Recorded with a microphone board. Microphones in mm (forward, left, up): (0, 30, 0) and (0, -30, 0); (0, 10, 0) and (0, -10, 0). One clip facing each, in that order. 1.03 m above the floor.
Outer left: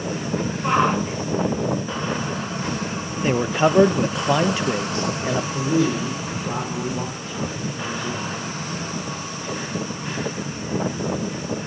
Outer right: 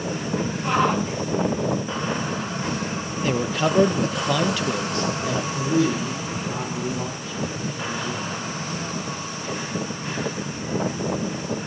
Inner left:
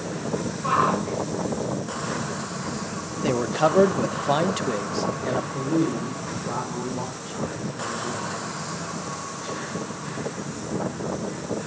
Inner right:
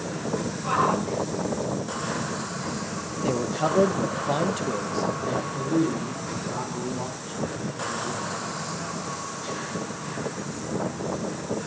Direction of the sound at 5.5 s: 45° left (ahead or behind).